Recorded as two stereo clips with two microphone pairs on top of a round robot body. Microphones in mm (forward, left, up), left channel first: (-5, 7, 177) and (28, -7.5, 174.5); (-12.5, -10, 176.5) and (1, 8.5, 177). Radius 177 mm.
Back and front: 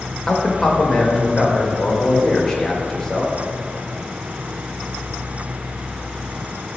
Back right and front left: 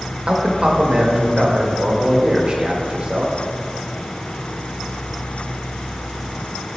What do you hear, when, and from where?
0.3 s a man speaking: 80° left, 1.3 m